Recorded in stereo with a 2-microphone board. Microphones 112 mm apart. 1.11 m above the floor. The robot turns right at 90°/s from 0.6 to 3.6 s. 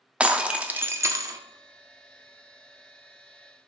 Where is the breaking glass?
10° right (ahead or behind), 0.6 m; by 1.4 s 30° right (ahead or behind), 0.6 m.